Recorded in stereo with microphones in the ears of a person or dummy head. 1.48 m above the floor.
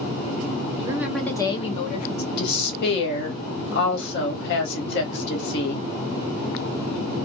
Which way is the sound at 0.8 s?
25° right (ahead or behind).